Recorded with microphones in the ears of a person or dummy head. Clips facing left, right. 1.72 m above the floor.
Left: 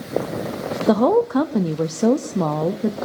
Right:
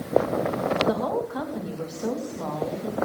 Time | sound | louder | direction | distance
0.9 | a woman speaking | left 10 dB | 75° left (ahead or behind) | 0.6 m